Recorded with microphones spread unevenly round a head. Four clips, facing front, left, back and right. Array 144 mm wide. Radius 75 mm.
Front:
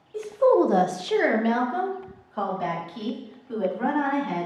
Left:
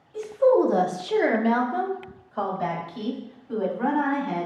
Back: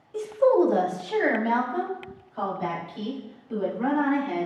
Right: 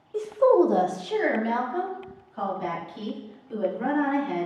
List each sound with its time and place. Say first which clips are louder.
0.1 s a woman speaking: even, front 1 dB; 115° right, 0.6 m; by 4.5 s 45° left, 3.5 m